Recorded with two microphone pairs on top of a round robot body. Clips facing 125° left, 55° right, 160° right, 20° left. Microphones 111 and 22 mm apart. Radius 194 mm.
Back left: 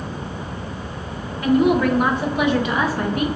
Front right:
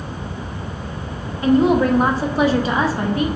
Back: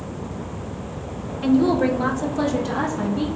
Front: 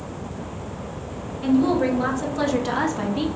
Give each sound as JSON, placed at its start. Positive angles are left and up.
{"t": 1.4, "sound": "a woman speaking", "azimuth_deg": -100, "distance_m": 1.0}